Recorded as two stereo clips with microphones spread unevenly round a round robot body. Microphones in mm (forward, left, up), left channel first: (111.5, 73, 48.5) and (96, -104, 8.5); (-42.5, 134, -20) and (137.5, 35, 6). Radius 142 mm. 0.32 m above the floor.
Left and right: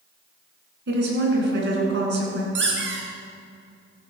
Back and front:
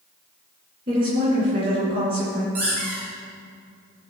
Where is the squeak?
90° right, 2.5 m.